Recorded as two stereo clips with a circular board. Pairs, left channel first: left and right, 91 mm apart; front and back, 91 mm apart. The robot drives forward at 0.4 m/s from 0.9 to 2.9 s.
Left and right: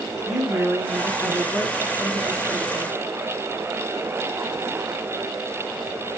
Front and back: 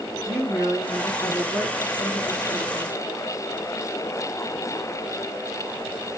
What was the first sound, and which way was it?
A woman speaking, 175° right.